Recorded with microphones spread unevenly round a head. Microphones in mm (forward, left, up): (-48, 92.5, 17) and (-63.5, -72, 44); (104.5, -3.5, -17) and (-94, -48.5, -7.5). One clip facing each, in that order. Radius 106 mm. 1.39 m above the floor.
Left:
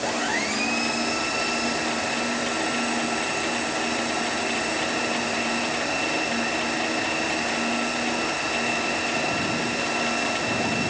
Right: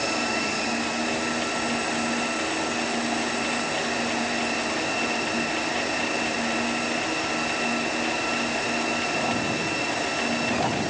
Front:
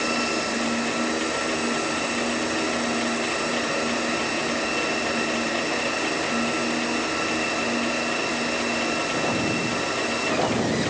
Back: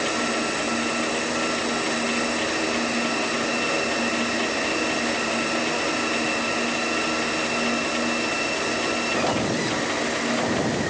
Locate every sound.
Only background noise.